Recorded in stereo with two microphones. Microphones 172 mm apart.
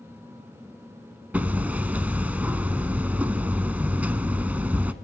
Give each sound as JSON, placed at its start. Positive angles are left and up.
{"t": 1.3, "sound": "hammering", "side_deg": -10, "distance_m": 0.6}